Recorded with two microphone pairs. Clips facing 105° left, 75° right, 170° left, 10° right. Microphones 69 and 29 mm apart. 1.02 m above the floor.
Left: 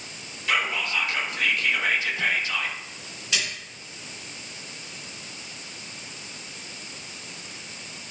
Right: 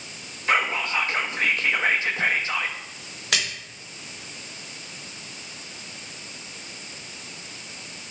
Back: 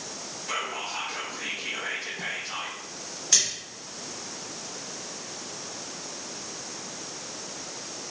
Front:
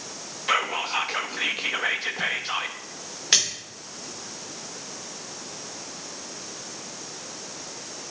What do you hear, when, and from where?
0.5 s whispering: 20° right, 1.0 m
3.3 s a splash: 60° right, 2.5 m